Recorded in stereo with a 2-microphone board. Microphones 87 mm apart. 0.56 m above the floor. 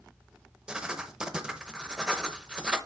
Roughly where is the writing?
Centre.